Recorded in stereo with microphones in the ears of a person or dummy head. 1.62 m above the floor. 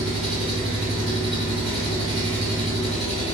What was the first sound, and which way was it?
An engine running, 40° right (ahead or behind).